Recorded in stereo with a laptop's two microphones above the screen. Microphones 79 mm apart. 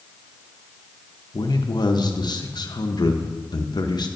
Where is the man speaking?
65° left (ahead or behind), 0.5 m.